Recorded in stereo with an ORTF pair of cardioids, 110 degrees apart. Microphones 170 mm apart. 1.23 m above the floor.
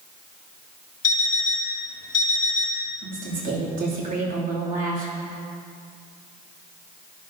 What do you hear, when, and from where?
1.0 s an alarm clock: 50° left, 1.9 m
3.0 s a woman speaking: 50° right, 3 m